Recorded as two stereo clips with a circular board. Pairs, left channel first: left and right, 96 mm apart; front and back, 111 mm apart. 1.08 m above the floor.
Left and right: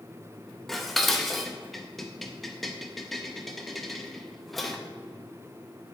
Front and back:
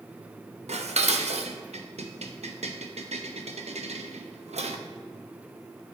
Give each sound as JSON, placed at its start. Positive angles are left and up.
{"t": 0.7, "sound": "dishes clattering", "azimuth_deg": 180, "distance_m": 0.6}